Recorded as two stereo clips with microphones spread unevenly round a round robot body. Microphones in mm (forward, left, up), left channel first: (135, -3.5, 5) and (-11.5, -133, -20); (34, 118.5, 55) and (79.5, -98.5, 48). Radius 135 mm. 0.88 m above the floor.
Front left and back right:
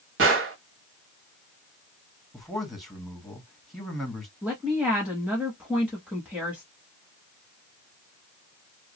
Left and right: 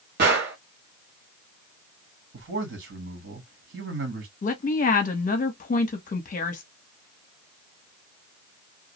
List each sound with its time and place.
0.2 s a gunshot: 125° right, 1.1 m
2.3 s a man speaking: 50° right, 1.5 m
4.4 s a woman speaking: 145° left, 0.7 m